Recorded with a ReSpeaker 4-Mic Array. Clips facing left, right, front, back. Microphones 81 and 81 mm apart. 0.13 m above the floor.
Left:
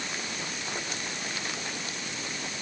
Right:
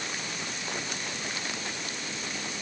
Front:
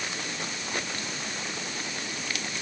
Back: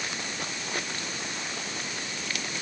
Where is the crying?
No crying in this recording.